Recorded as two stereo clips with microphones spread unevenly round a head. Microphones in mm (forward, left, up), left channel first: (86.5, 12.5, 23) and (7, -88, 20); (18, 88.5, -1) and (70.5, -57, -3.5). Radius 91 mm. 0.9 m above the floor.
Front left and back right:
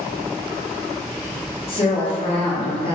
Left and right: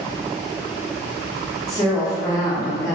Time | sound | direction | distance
1.7 | a woman speaking | 50° left | 0.8 m